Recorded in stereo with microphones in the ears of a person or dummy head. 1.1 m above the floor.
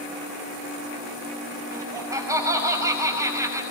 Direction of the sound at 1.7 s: 15° right (ahead or behind).